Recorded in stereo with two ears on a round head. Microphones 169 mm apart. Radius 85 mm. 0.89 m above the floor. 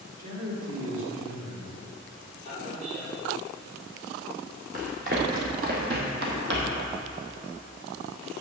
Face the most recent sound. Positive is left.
turn(degrees=-65)  # may be behind; listen again after turning